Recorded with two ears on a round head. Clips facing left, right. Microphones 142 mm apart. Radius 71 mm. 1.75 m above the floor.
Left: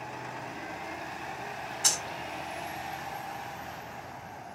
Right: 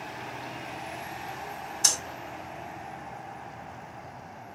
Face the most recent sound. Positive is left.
turn(degrees=-55)  # may be behind; listen again after turning